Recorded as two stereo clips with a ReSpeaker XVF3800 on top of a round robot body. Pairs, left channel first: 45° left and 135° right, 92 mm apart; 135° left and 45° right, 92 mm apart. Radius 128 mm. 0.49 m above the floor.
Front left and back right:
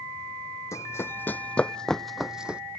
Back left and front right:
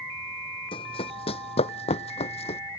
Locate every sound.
0.7 s running footsteps: 105° left; by 2.6 s 145° left